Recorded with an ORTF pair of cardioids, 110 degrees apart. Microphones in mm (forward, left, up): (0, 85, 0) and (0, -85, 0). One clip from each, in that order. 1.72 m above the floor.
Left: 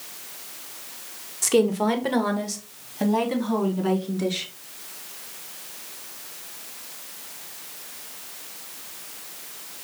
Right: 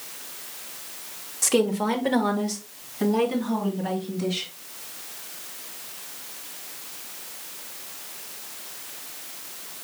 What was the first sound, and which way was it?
A woman speaking, 5° left.